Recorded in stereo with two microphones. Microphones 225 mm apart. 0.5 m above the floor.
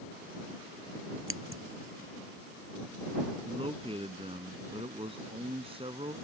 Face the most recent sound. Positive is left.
turn(degrees=-25)  # may be behind; listen again after turning